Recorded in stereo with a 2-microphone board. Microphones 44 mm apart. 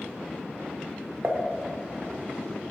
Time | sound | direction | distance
1.2 | dishes clattering | 45° right (ahead or behind) | 0.9 m